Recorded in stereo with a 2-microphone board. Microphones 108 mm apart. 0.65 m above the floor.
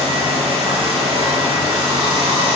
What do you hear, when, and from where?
0.0 s running water: 60° right (ahead or behind), 0.9 m